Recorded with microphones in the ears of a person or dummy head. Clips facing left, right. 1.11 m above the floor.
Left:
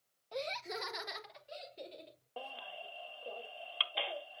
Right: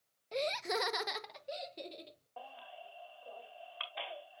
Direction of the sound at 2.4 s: 35° left (ahead or behind).